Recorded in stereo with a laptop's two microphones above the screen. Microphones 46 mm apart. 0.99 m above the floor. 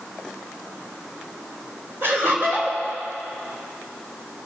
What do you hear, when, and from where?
2.0 s laughter: 60° right (ahead or behind), 3.5 m